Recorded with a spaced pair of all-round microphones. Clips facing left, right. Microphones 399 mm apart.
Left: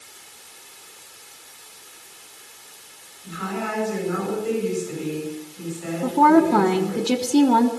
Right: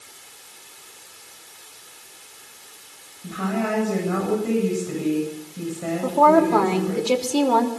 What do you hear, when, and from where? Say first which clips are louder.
3.2 s a woman speaking: right 5 dB; 70° right (ahead or behind), 8.5 m
6.0 s a woman speaking: left 2 dB; 30° left (ahead or behind), 3.5 m